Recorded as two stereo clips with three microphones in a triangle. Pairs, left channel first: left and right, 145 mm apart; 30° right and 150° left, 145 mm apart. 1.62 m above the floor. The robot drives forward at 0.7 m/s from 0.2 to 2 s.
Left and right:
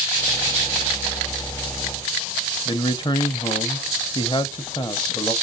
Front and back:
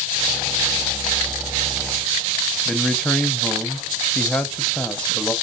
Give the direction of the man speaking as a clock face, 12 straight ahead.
10 o'clock.